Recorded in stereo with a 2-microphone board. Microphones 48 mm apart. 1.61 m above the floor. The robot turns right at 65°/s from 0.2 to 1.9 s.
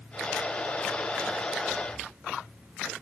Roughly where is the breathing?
Right.